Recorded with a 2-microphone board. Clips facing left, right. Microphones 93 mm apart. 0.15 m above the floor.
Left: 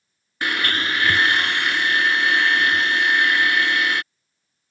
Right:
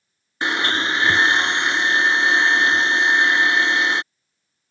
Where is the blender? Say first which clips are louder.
Right 2 dB; 25° right (ahead or behind).